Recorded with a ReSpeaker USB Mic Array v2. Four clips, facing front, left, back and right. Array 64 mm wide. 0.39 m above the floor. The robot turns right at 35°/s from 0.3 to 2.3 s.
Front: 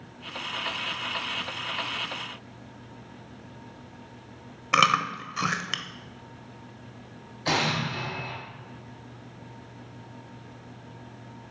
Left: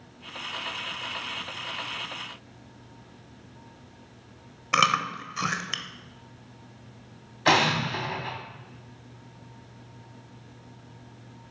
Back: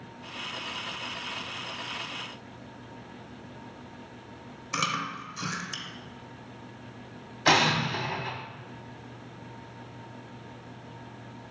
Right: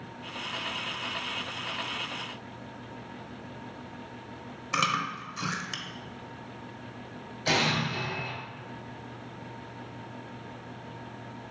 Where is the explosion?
115° left, 1.2 m.